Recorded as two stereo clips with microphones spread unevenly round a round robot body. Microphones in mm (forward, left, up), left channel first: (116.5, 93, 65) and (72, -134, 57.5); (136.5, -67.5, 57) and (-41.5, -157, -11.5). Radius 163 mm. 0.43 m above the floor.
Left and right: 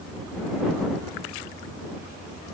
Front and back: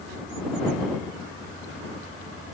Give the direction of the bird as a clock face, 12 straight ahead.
I don't hear a bird.